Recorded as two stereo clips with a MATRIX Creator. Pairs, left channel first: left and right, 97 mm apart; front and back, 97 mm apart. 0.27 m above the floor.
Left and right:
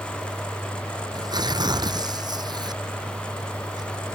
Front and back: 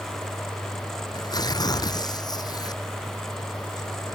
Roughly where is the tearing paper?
Ahead right.